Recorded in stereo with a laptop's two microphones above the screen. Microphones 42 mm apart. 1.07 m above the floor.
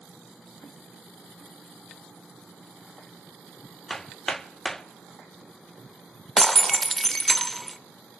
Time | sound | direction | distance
3.9 | hammering | 10° left (ahead or behind) | 0.7 m
6.4 | breaking glass | 5° left (ahead or behind) | 0.8 m